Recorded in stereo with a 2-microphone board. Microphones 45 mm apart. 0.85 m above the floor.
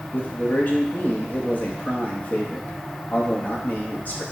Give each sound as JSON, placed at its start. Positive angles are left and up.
{"t": 0.1, "sound": "a man speaking", "side_deg": 40, "distance_m": 0.9}